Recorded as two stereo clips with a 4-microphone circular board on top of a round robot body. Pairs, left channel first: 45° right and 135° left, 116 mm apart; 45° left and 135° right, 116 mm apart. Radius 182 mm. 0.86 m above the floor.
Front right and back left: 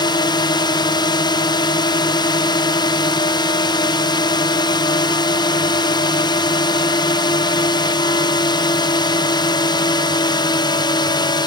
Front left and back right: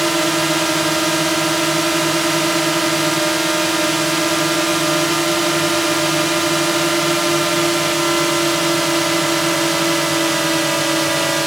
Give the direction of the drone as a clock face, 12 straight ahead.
2 o'clock.